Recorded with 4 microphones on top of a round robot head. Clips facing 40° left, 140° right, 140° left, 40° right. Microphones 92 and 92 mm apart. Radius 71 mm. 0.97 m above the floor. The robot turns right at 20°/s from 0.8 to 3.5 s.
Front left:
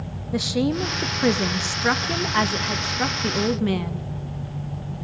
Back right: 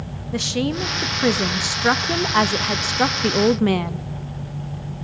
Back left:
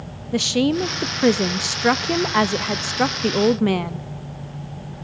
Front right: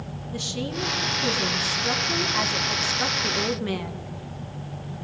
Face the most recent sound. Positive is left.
turn(degrees=180)